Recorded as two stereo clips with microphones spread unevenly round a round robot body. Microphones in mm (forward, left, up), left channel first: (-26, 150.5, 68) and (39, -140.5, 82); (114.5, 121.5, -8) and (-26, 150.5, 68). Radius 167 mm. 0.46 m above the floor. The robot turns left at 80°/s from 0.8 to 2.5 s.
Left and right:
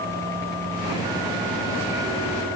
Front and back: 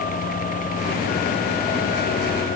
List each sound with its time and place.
Only background noise.